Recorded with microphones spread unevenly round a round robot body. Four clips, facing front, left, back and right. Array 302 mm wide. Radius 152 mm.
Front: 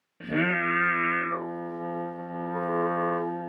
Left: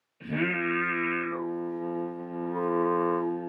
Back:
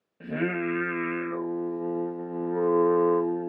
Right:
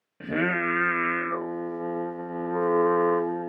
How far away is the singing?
About 1.2 m.